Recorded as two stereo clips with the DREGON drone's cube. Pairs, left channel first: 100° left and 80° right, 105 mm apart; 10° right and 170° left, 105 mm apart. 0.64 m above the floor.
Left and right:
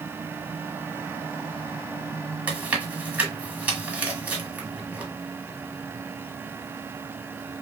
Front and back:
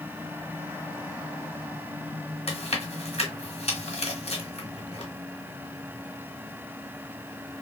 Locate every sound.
2.5 s chewing: 5° right, 1.2 m